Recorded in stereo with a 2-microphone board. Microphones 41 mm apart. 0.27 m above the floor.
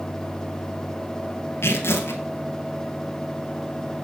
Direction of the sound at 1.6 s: 75° left (ahead or behind).